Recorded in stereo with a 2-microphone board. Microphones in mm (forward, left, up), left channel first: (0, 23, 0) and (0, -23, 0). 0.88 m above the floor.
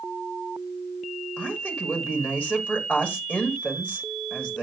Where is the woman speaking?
30° left (ahead or behind), 2 m.